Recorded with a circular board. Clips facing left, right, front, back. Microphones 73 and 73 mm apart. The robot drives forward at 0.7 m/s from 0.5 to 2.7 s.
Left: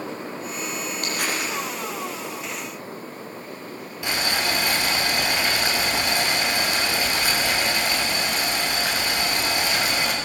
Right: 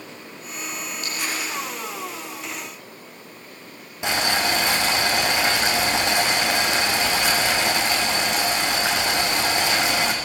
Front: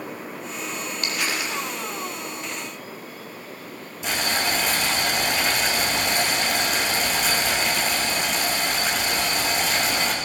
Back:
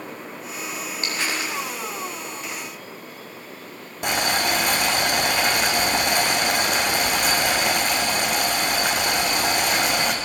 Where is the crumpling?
120° left, 7 m; by 1.5 s 125° left, 7 m.